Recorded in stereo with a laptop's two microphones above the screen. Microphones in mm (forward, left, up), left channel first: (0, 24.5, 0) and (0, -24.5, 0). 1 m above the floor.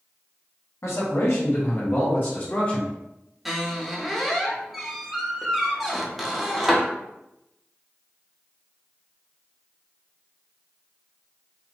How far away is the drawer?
No drawer in this recording.